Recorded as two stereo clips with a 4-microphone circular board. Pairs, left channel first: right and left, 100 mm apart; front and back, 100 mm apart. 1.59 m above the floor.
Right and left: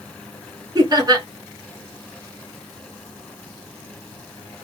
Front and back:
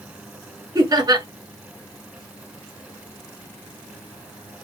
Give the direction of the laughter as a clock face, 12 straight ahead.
7 o'clock.